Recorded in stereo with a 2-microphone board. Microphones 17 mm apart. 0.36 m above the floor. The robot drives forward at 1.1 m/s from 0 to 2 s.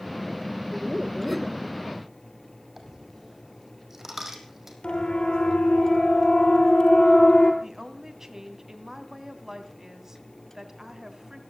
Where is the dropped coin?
20° right (ahead or behind), 4 m.